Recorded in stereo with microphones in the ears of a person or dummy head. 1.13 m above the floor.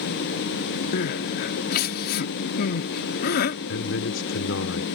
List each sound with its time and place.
0.9 s crying: 60° left (ahead or behind)
3.7 s a man speaking: 75° left (ahead or behind)